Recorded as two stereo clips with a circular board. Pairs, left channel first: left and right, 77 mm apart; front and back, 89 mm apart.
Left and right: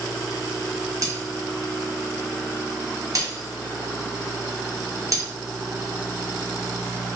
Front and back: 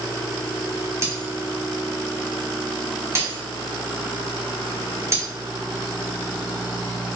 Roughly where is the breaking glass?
Behind right.